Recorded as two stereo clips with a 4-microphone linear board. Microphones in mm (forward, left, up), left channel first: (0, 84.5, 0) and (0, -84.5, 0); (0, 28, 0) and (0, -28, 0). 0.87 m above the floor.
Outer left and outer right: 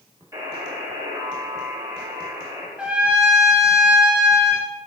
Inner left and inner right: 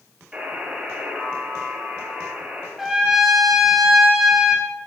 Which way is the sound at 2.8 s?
5° right (ahead or behind).